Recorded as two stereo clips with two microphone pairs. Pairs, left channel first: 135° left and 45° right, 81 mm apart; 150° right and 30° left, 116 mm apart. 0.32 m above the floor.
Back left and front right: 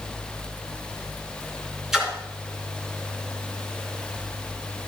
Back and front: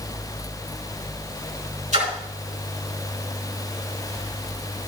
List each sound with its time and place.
1.9 s a splash: 40° left, 3 m